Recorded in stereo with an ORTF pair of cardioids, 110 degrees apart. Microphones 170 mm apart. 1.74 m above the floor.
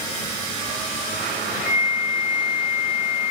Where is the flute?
10° right, 1.1 m.